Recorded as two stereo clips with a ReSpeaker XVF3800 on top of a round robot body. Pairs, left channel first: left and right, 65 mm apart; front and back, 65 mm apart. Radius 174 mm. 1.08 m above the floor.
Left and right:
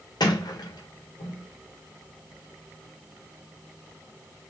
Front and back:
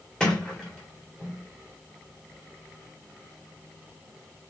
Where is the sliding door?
80° left, 1.5 m.